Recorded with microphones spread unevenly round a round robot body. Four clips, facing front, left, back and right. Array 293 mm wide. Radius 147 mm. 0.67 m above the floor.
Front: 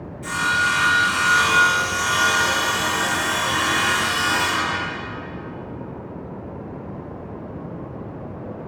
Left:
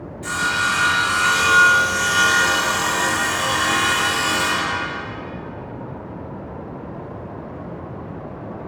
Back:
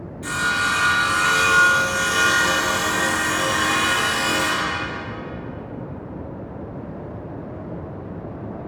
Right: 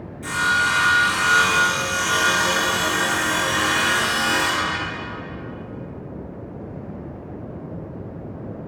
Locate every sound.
0.2 s sawing: 140° right, 3.5 m